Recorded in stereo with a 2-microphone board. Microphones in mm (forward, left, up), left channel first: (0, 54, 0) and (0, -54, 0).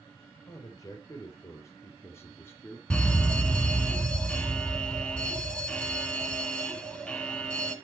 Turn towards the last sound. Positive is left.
turn(degrees=10)  # may be behind; listen again after turning